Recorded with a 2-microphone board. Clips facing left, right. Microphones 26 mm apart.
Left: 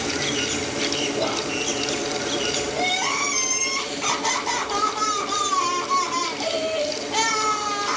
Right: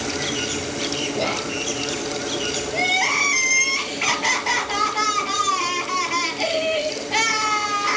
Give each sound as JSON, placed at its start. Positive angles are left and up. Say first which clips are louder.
{"t": 1.1, "sound": "whispering", "louder": "even", "side_deg": -65, "distance_m": 3.0}
{"t": 2.7, "sound": "crying", "louder": "right 6 dB", "side_deg": -60, "distance_m": 4.5}